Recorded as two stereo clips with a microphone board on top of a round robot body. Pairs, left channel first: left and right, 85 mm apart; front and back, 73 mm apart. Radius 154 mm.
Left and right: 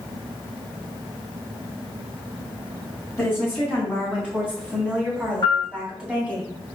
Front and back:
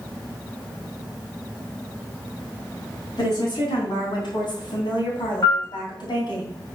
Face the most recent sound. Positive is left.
turn(degrees=45)